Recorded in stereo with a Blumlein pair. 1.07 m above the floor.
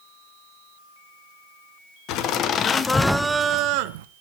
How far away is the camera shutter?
I don't hear a camera shutter.